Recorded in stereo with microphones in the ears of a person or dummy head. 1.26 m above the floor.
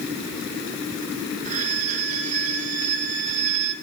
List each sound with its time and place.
1.4 s a violin: 40° right (ahead or behind), 5.5 m